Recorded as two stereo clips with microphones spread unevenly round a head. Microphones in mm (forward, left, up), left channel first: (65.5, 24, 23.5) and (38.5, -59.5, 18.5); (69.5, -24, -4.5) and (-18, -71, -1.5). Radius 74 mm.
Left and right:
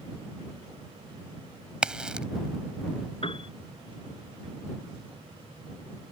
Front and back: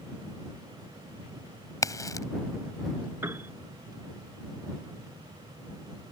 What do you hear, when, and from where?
1.8 s a crack: 25° right
3.2 s a piano: 130° left